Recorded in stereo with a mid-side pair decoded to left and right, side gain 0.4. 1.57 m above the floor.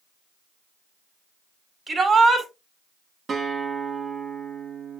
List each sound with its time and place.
1.9 s a shout: 40° right, 4 m
3.3 s a guitar: 50° right, 3.5 m